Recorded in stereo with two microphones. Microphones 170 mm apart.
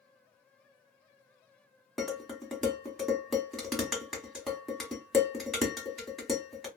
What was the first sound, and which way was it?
Dishes clattering, centre (ahead or behind).